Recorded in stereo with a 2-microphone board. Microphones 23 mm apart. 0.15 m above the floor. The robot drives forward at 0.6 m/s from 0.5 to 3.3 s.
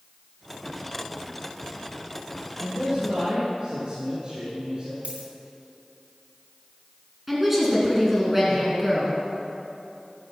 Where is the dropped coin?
80° right, 1.6 m.